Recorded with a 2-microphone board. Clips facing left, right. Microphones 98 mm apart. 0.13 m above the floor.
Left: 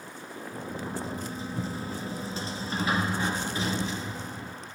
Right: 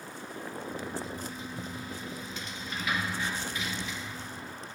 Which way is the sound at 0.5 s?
35° left (ahead or behind).